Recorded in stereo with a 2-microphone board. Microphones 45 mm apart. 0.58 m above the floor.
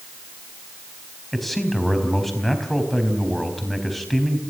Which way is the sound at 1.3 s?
Centre (ahead or behind).